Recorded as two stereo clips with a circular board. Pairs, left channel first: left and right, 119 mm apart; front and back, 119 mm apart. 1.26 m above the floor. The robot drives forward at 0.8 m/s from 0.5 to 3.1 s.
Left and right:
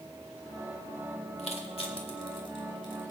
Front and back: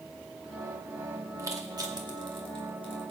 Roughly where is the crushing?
Behind left.